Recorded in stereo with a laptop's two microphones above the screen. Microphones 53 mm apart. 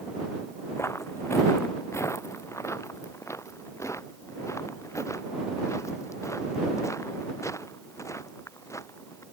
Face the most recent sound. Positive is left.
turn(degrees=75)  # may be behind; listen again after turning